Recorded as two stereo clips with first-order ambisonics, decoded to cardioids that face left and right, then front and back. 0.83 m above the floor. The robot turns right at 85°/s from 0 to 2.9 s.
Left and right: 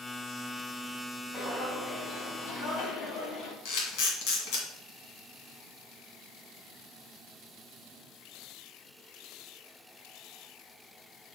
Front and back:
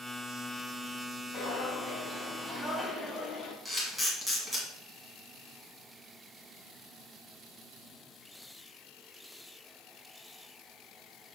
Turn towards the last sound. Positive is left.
turn(degrees=100)